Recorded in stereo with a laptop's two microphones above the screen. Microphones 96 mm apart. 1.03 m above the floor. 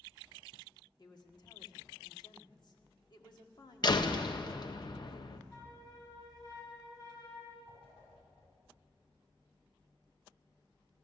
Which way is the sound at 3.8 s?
50° left (ahead or behind).